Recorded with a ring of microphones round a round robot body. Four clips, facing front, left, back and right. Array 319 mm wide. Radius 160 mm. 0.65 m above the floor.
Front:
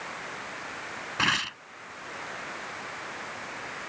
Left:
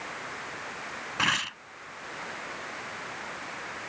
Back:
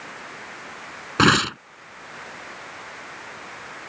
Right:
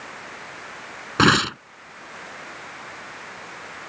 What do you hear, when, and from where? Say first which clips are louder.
1.2 s tearing paper: right 13 dB, back 12 dB; 135° right